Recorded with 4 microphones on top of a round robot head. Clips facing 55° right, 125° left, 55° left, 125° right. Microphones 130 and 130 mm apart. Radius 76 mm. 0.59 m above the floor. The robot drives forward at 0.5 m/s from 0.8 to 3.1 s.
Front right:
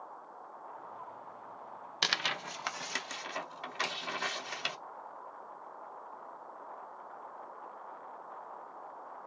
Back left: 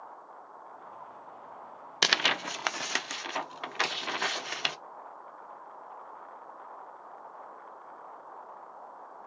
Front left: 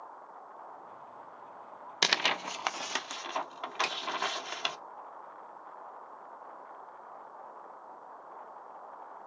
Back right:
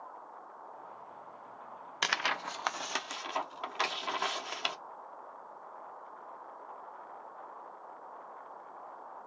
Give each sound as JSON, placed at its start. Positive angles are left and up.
{"t": 2.0, "sound": "tearing paper", "azimuth_deg": 105, "distance_m": 0.5}
{"t": 3.8, "sound": "a finger snap", "azimuth_deg": 100, "distance_m": 3.0}